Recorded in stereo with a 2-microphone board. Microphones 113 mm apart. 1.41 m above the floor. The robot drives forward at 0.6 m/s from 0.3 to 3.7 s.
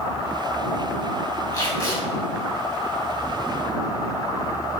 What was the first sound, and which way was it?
Tape being pulled, 35° left (ahead or behind).